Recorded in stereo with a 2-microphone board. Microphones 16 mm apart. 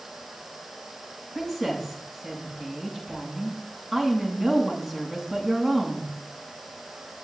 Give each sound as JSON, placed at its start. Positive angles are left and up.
{"t": 1.4, "sound": "a woman speaking", "side_deg": 0, "distance_m": 7.0}